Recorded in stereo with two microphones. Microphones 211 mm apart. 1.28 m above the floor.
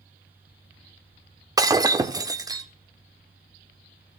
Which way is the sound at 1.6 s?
15° right (ahead or behind).